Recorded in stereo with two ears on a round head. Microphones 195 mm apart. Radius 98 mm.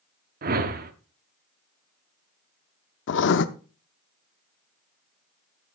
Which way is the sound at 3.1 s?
55° left (ahead or behind).